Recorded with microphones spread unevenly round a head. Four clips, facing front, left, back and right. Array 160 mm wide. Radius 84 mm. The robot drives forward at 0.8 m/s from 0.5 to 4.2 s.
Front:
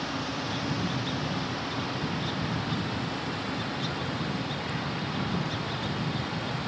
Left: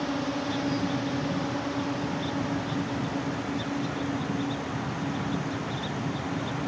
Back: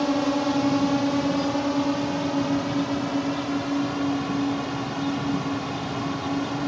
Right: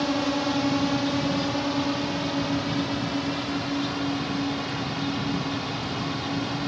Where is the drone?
160° right; by 6.7 s 165° right.